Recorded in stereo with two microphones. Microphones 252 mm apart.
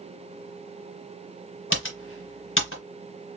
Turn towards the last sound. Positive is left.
turn(degrees=50)  # may be behind; listen again after turning